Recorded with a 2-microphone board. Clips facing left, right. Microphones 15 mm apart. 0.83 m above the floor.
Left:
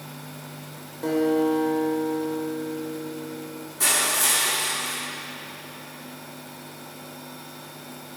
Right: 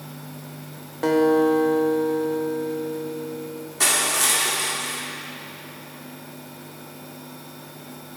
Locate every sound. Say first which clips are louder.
1.0 s a guitar: right 4 dB; 55° right (ahead or behind), 0.9 m
3.8 s crushing: right 2 dB; 40° right (ahead or behind), 2 m